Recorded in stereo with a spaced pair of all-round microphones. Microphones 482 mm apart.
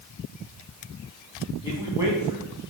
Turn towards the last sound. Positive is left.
turn(degrees=-10)  # may be behind; listen again after turning